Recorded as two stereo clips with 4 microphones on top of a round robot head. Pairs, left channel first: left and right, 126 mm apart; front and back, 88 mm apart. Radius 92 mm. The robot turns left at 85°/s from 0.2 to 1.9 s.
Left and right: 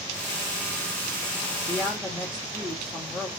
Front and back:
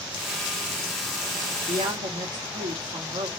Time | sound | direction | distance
1.7 | a woman speaking | 155° right | 1.9 m